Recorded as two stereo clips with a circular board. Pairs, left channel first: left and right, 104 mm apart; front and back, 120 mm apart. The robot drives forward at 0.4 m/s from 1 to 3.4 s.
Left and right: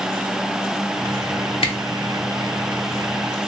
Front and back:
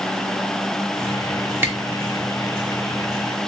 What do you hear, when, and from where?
1.6 s a camera shutter: 110° left, 0.7 m